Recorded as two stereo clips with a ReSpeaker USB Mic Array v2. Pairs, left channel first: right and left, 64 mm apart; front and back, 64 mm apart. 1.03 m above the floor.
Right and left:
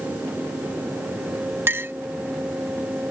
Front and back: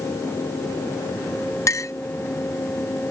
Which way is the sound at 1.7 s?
35° left.